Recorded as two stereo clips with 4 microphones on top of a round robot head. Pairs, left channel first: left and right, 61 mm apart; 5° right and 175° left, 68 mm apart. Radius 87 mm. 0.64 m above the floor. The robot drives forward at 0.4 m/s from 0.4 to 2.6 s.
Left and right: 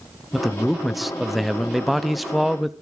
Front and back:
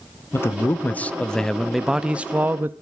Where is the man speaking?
Straight ahead, 0.9 m; by 2.7 s straight behind, 0.8 m.